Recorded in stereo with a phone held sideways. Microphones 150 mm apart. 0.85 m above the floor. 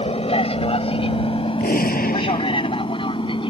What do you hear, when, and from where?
0.0 s an aircraft: 40° left (ahead or behind); by 3.5 s 35° left (ahead or behind)
1.6 s a gunshot: 80° left